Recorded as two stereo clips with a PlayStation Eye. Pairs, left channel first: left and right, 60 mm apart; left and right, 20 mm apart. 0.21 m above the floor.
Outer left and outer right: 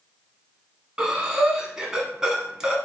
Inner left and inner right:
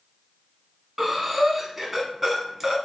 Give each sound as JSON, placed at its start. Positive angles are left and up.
{"t": 1.0, "sound": "breathing", "side_deg": -15, "distance_m": 0.7}